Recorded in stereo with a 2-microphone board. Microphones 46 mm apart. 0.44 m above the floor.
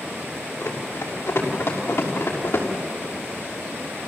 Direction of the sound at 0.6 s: 75° left (ahead or behind).